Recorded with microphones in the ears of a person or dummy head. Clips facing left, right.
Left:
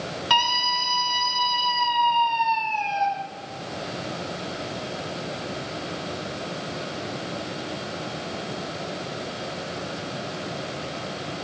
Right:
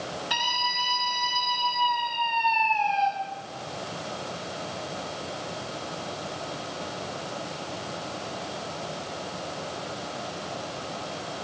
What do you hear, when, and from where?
0.3 s a scream: 80° left, 4.5 m